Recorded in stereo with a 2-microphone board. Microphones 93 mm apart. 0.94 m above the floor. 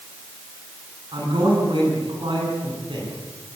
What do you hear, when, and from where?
1.1 s a man speaking: 60° right (ahead or behind), 9.5 m